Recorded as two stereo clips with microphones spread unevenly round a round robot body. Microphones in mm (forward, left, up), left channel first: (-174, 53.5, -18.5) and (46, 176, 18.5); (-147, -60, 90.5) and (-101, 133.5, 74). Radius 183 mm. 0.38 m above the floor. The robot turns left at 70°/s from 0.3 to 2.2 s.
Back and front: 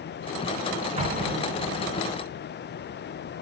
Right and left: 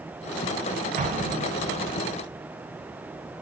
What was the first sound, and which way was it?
An explosion, 95° left.